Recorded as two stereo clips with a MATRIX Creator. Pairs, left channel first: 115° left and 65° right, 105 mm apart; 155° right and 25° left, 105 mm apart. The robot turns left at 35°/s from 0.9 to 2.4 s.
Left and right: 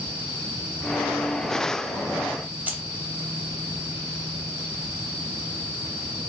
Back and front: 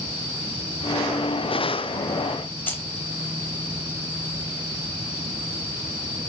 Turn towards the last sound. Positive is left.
turn(degrees=-115)